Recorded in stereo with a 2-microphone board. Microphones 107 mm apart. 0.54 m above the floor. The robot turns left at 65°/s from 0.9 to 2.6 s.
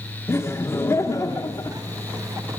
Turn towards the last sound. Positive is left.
turn(degrees=25)